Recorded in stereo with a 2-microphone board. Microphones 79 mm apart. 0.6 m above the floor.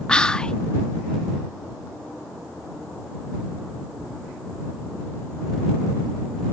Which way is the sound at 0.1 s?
10° left (ahead or behind).